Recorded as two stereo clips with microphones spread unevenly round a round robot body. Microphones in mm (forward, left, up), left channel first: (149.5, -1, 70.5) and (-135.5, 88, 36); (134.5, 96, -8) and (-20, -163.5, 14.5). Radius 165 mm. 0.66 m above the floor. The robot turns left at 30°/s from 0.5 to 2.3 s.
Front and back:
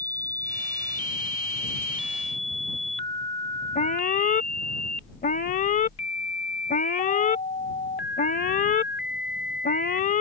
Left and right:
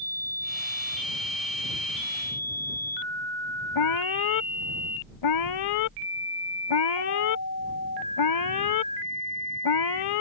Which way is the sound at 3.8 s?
45° left.